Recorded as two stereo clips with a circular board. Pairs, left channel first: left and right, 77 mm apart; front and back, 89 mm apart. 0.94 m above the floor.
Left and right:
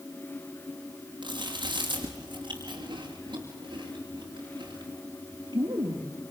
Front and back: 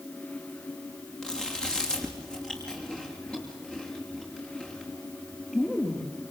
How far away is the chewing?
About 5.5 m.